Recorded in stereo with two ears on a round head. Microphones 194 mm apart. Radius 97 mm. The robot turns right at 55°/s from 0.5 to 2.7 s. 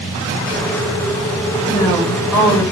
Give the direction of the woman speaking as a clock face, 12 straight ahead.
7 o'clock.